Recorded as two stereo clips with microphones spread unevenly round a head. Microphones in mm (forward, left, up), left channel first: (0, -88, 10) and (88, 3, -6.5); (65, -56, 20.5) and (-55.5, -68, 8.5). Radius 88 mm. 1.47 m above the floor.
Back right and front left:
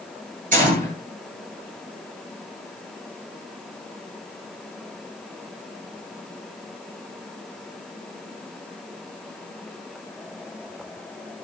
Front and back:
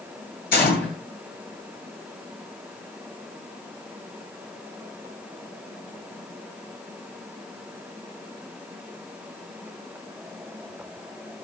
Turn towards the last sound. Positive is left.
turn(degrees=35)